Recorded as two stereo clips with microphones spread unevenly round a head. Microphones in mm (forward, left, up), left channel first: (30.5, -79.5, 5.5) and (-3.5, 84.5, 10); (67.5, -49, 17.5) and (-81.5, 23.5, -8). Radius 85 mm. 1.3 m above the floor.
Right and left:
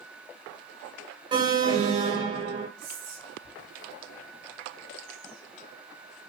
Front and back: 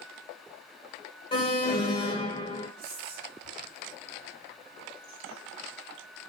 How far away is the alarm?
About 0.9 m.